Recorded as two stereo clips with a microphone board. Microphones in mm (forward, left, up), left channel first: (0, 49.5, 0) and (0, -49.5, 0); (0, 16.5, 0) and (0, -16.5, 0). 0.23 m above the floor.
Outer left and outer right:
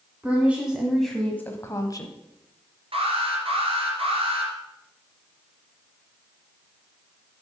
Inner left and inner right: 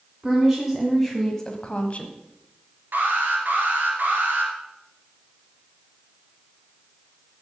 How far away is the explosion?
I don't hear an explosion.